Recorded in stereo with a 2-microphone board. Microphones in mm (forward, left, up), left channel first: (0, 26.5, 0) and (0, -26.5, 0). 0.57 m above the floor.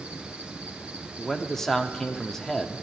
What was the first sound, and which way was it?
An insect, 20° right (ahead or behind).